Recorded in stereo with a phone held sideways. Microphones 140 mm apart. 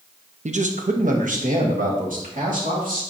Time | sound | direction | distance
0.5 | a man speaking | 60° right (ahead or behind) | 0.7 m